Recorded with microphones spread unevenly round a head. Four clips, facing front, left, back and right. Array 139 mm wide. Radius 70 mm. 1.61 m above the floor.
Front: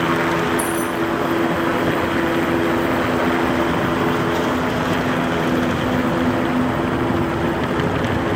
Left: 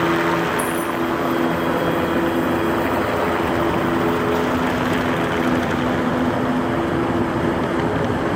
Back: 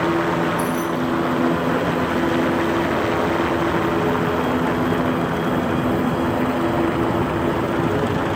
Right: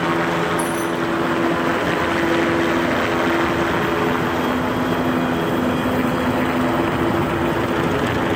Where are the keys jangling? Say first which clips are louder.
Even, front 1 dB; 15° right.